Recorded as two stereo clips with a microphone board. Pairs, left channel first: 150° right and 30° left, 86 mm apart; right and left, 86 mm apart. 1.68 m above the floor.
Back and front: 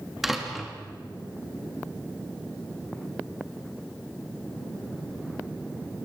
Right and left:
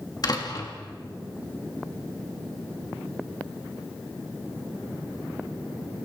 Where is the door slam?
55° right, 3 m.